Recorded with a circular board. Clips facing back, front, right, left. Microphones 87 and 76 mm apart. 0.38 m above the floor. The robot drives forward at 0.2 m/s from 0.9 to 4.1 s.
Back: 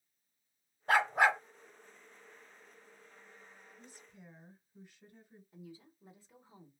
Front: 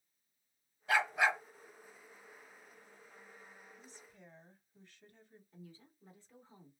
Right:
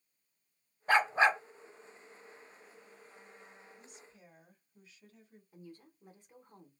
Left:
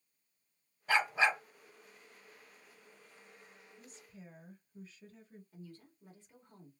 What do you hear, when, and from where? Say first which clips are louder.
0.9 s a dog barking: back 4 dB, right 4 dB; 135° right, 0.8 m; by 1.4 s 140° right, 0.8 m
3.8 s a woman speaking: back 1 dB, left 2 dB; 115° left, 1.7 m
5.5 s a woman speaking: back 4 dB, right 3 dB; 125° right, 0.9 m